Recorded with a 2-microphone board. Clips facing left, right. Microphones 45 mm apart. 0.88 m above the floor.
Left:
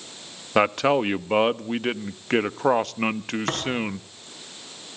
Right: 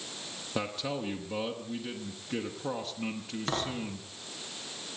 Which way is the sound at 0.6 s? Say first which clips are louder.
Left 14 dB; 65° left (ahead or behind).